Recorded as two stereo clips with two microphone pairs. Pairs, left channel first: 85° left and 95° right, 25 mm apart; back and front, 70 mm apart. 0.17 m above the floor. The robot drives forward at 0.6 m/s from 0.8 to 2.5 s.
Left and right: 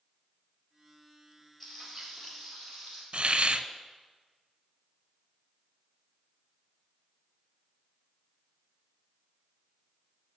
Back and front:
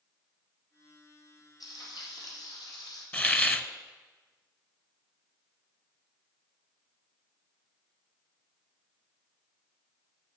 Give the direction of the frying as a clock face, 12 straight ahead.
7 o'clock.